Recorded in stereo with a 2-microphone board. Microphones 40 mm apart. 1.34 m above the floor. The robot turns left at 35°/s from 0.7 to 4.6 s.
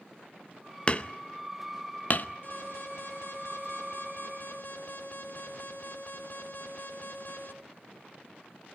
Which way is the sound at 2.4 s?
120° left.